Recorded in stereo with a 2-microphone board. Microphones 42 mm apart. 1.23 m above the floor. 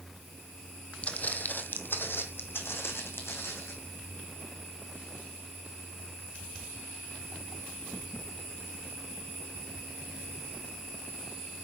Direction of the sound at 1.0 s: 30° left (ahead or behind).